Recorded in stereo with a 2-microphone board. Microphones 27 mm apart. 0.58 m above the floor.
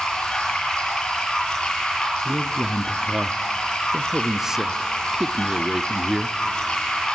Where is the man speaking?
20° right (ahead or behind), 0.6 m.